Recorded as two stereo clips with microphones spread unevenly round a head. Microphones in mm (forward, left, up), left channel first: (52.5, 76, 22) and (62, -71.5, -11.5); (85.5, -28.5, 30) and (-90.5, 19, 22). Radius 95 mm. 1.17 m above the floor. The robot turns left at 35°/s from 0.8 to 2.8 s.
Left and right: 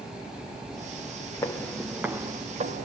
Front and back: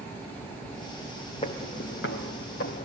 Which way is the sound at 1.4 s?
40° left.